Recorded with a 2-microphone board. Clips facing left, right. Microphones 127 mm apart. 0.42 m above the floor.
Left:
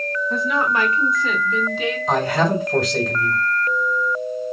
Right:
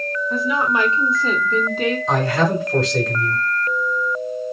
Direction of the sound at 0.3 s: 5° right (ahead or behind).